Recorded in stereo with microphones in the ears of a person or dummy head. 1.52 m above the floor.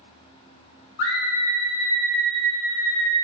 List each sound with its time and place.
1.0 s a scream: 60° left (ahead or behind), 0.9 m; by 3.1 s 20° right (ahead or behind), 1.3 m